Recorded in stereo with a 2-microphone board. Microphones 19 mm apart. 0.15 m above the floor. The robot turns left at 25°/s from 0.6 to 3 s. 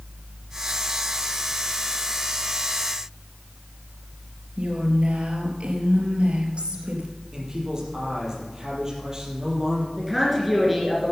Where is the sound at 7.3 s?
30° right (ahead or behind), 4.5 m.